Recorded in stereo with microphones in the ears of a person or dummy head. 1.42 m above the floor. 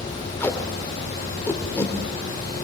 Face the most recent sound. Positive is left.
turn(degrees=10)  # may be behind; listen again after turning